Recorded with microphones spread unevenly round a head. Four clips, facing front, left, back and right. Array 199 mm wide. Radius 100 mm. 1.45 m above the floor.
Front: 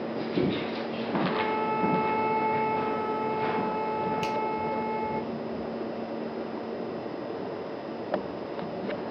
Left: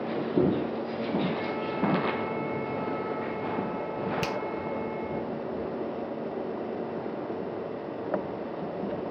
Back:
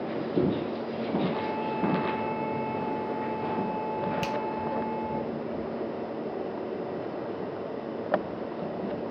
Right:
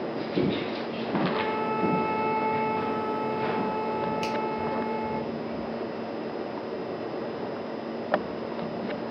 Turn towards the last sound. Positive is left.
turn(degrees=150)